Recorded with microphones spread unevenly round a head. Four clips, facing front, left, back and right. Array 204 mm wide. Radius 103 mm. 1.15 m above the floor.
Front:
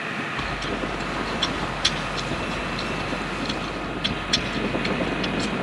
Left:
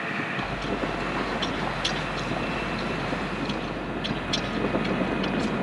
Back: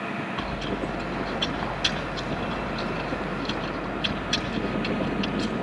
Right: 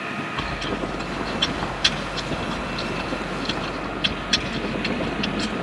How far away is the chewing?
About 5 m.